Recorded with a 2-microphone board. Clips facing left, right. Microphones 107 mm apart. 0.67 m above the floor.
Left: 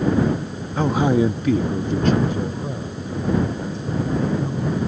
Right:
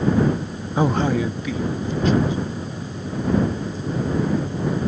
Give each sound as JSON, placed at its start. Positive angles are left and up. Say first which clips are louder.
{"t": 0.8, "sound": "a man speaking", "louder": "left 2 dB", "side_deg": -15}